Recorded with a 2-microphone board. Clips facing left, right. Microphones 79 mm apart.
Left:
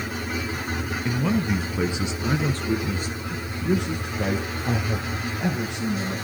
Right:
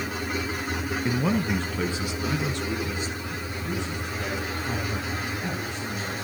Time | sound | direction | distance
1.1 | a man speaking | 15° right (ahead or behind) | 1.1 m